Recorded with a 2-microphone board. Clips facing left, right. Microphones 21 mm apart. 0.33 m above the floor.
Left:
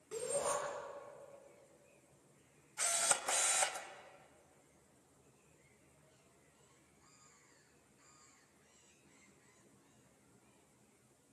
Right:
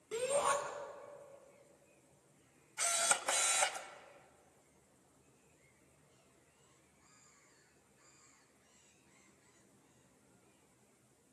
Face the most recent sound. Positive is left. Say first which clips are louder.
# right 2 dB
turn(degrees=-20)  # may be behind; listen again after turning